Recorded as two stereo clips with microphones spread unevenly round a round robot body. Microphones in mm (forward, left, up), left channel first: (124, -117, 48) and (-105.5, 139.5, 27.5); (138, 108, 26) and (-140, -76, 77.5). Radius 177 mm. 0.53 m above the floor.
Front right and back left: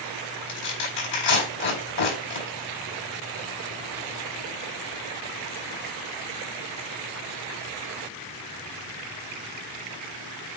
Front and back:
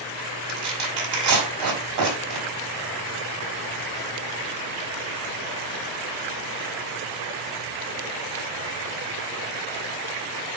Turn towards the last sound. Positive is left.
turn(degrees=-105)